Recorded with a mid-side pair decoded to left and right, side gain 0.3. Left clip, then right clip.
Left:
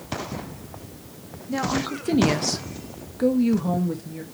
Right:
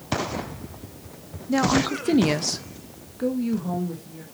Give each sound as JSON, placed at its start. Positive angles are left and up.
{"t": 1.5, "sound": "a woman speaking", "azimuth_deg": -50, "distance_m": 1.5}